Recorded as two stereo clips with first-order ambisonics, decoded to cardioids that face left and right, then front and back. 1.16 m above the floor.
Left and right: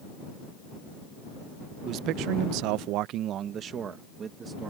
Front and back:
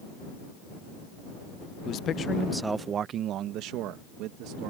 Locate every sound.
1.9 s a man speaking: 45° right; by 4.7 s 160° right